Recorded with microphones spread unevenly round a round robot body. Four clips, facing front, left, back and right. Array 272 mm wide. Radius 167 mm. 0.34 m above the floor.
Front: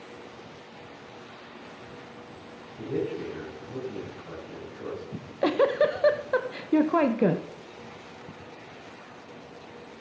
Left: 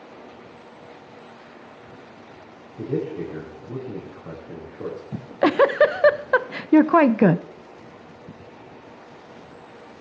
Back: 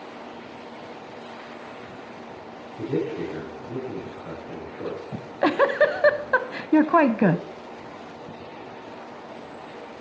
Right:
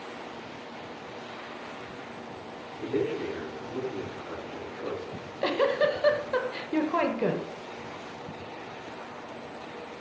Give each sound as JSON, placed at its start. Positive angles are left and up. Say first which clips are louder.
{"t": 2.8, "sound": "a man speaking", "louder": "left 2 dB, back 4 dB", "azimuth_deg": 120, "distance_m": 8.0}
{"t": 5.1, "sound": "a giggle", "louder": "left 11 dB, back 3 dB", "azimuth_deg": 145, "distance_m": 0.5}